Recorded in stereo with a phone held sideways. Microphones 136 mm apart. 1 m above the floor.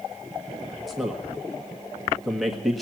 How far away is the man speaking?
About 1.6 m.